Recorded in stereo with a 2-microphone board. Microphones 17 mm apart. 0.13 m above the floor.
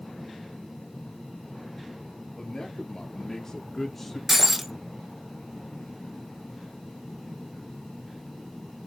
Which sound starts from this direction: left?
A man speaking, at 2.4 s.